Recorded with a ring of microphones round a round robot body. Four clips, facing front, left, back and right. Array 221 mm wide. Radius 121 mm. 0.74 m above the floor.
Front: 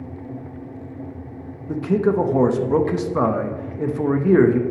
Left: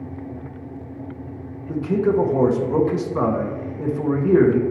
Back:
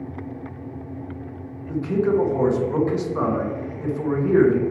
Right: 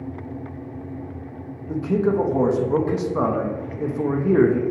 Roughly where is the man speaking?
Ahead.